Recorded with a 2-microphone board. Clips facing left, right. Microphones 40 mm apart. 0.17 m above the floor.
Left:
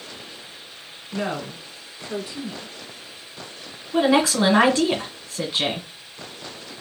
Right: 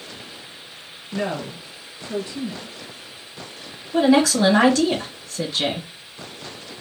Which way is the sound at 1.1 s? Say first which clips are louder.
Right 1 dB; 15° left (ahead or behind).